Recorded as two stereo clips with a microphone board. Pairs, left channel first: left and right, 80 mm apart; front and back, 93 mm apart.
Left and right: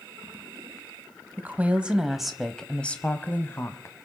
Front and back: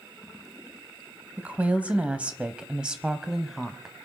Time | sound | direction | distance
1.4 | a woman speaking | 125° right | 1.3 m